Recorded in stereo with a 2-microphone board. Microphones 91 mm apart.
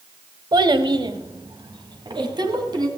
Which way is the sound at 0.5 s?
55° right (ahead or behind).